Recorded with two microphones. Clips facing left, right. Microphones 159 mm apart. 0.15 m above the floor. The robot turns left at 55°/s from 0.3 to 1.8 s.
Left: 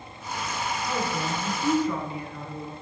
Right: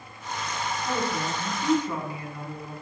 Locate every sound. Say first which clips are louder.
0.8 s a woman speaking: right 1 dB; 20° right (ahead or behind), 1.1 m; by 2.7 s 15° right (ahead or behind), 1.1 m